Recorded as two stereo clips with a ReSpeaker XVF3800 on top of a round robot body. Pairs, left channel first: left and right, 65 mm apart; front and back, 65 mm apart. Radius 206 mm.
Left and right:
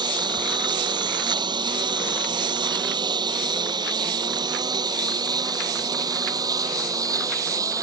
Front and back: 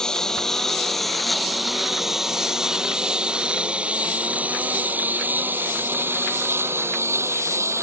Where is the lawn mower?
80° right; by 7.8 s 130° right.